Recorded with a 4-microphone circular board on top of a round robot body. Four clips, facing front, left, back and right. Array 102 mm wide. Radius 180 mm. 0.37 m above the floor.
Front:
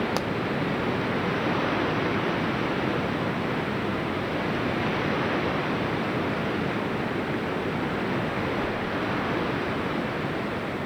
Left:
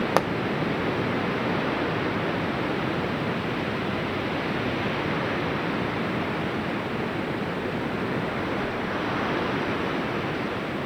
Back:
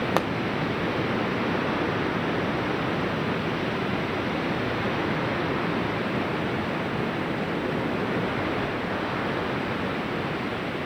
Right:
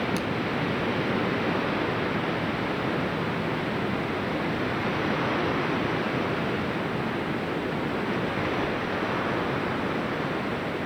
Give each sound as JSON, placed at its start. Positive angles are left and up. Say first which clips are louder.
{"t": 0.2, "sound": "a pop", "louder": "left 7 dB, back 4 dB", "azimuth_deg": 115, "distance_m": 1.1}